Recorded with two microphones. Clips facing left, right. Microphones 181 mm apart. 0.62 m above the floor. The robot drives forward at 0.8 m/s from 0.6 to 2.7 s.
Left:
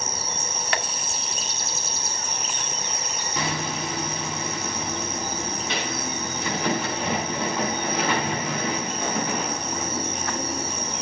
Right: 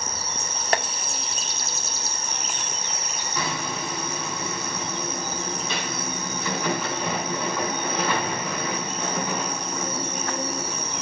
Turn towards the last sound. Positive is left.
turn(degrees=20)  # may be behind; listen again after turning